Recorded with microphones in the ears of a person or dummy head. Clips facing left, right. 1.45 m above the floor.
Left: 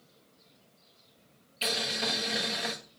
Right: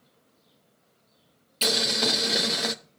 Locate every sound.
1.6 s boiling: 55° right (ahead or behind), 0.8 m